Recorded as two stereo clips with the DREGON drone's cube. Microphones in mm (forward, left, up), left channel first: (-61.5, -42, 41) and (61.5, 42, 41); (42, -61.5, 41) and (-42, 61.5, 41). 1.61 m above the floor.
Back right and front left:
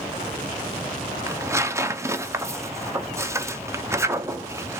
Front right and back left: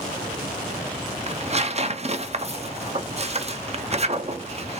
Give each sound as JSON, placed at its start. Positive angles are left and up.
{"t": 1.3, "sound": "tearing paper", "azimuth_deg": 100, "distance_m": 0.5}